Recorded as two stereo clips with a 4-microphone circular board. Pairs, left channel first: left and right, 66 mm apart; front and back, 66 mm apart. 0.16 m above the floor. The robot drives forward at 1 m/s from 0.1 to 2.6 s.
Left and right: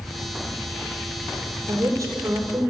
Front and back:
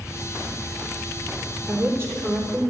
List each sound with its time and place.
1.7 s a woman speaking: 130° right, 3.5 m; by 2.7 s 140° right, 4 m